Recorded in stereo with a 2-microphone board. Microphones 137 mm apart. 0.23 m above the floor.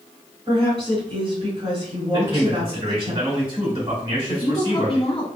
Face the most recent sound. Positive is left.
turn(degrees=45)  # may be behind; listen again after turning